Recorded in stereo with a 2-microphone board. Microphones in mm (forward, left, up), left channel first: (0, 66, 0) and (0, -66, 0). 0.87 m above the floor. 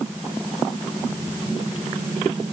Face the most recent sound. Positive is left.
No sound to turn to.